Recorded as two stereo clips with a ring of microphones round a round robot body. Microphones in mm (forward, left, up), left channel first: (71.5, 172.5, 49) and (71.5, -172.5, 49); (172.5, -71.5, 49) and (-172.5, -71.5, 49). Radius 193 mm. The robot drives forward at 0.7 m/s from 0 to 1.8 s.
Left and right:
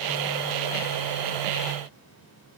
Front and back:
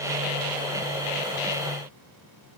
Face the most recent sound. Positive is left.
No sound to turn to.